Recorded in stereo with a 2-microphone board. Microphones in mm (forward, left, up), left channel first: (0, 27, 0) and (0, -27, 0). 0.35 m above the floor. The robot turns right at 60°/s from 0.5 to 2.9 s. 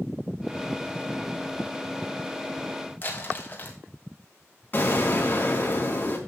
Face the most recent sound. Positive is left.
turn(degrees=35)  # may be behind; listen again after turning